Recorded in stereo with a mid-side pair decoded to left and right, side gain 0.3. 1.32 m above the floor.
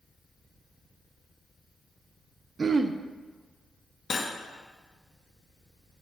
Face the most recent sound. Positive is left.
turn(degrees=65)